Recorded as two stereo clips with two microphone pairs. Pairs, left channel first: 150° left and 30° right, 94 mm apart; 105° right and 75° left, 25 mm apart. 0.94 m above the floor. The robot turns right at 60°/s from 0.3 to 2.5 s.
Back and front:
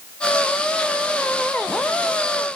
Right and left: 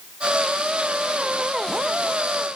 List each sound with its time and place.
Only background noise.